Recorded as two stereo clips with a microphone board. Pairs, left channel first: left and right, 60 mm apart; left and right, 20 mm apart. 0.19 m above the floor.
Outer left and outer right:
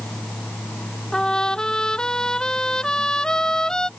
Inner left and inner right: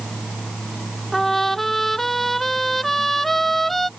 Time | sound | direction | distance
1.1 | a trumpet | 15° left (ahead or behind) | ?